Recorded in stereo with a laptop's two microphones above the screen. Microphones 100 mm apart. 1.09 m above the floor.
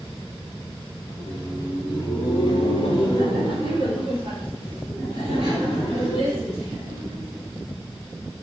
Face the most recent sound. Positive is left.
turn(degrees=75)  # may be behind; listen again after turning